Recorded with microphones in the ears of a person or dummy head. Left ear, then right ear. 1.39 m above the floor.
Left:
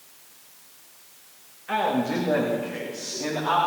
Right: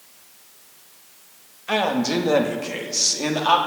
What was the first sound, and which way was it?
A man speaking, 85° right.